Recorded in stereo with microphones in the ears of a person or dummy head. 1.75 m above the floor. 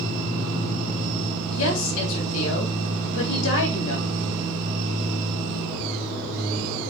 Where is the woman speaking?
75° left (ahead or behind), 3.5 m.